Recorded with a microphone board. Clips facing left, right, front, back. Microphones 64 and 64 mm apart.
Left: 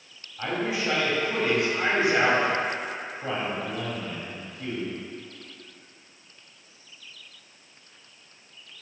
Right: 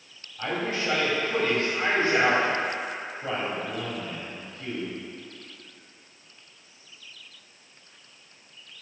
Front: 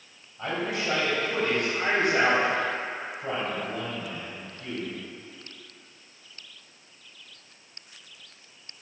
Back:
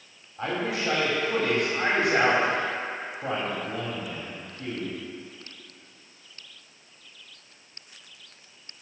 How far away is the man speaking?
About 3 m.